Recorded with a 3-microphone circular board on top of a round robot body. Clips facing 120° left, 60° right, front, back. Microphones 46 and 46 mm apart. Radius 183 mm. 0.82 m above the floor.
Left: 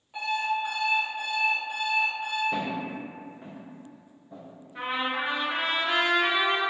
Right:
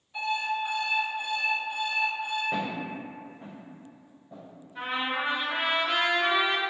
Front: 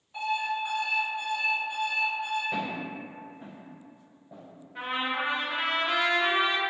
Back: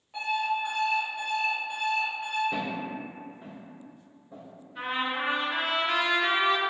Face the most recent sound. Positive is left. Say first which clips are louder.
# left 1 dB, even
turn(degrees=65)